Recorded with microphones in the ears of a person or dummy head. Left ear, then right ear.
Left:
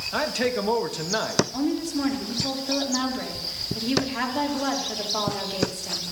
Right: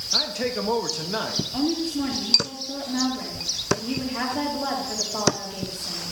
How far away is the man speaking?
About 0.7 m.